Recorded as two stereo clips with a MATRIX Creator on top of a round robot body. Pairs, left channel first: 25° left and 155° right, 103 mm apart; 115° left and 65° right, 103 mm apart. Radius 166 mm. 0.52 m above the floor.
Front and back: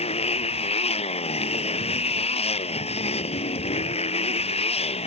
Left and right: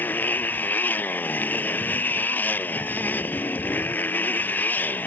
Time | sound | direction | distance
0.0 | a motorcycle | 40° left | ?